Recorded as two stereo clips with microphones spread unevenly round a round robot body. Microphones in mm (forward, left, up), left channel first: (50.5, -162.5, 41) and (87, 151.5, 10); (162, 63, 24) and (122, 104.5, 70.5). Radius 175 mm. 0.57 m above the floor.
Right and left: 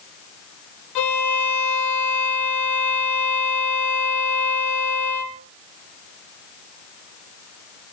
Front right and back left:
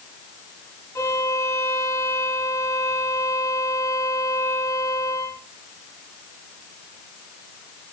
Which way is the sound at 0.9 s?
135° right.